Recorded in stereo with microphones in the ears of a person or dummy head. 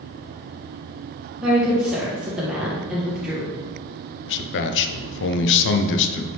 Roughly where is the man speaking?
Left.